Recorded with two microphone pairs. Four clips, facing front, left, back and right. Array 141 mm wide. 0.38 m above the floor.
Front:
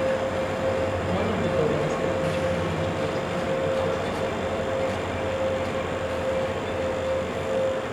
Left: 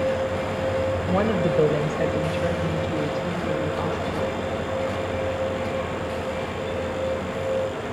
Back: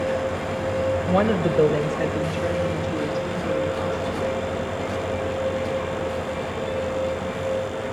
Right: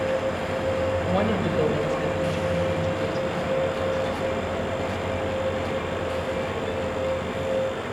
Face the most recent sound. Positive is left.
turn(degrees=95)